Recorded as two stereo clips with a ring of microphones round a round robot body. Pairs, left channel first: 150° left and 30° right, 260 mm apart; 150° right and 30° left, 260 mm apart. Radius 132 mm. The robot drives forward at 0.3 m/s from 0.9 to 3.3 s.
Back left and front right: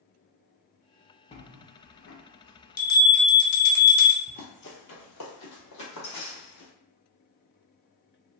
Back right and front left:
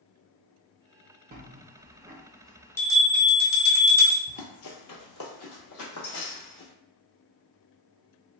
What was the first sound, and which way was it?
A bell, 80° left.